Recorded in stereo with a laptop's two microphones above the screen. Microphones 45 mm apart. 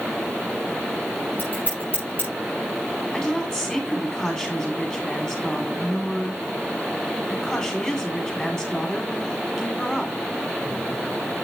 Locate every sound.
1.4 s scissors: 45° left (ahead or behind), 5.5 m
3.1 s a woman speaking: 20° left (ahead or behind), 2 m